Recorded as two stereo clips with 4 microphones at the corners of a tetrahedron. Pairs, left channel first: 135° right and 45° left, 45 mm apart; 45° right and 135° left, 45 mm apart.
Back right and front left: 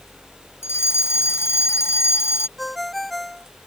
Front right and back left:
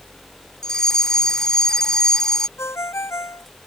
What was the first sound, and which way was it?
A fire alarm, 125° right.